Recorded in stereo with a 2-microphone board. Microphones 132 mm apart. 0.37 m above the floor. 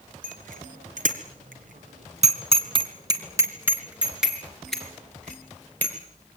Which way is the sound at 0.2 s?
75° right (ahead or behind).